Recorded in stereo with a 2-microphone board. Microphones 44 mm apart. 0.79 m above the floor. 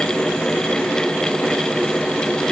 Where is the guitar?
No guitar in this recording.